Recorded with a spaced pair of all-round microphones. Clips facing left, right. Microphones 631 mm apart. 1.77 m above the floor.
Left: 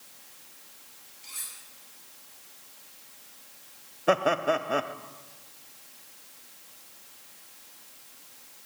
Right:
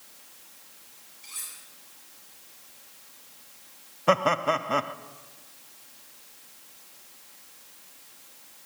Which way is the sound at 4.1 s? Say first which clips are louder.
Even; 30° right (ahead or behind).